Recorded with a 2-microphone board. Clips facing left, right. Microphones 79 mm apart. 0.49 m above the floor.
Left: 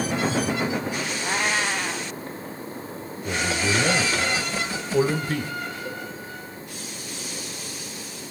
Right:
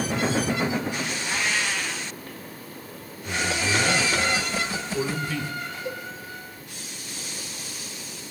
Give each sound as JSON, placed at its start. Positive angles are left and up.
{"t": 1.2, "sound": "a cat meowing", "side_deg": 40, "distance_m": 1.4}
{"t": 3.2, "sound": "a man speaking", "side_deg": 50, "distance_m": 2.5}
{"t": 5.8, "sound": "a cowbell", "side_deg": -20, "distance_m": 8.0}